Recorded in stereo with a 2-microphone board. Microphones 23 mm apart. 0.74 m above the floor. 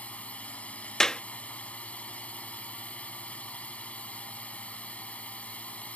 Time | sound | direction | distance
0.0 | a drone | 80° left | ?
1.0 | a clap | 30° left (ahead or behind) | ?